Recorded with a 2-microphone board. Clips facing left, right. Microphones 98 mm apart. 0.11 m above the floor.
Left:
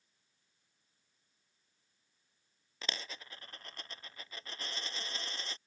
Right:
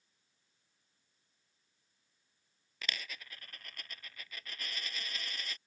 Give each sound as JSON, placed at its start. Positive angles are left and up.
{"t": 2.8, "sound": "a dropped coin", "side_deg": 30}